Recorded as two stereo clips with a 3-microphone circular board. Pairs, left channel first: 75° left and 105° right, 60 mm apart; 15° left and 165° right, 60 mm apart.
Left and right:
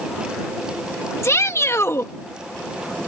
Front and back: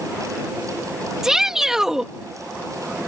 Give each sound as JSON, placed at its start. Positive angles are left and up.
{"t": 1.2, "sound": "a shout", "azimuth_deg": 115}